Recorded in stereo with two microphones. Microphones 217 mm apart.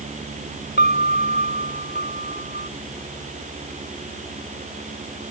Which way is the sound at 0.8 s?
50° left (ahead or behind).